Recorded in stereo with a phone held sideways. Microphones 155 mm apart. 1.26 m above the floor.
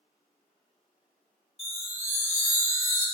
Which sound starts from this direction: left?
A chime, at 1.6 s.